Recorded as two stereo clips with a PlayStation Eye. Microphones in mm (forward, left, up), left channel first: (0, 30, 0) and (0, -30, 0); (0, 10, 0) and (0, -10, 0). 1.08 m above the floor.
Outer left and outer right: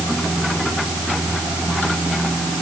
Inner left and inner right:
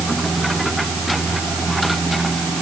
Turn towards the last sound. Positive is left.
No sound to turn to.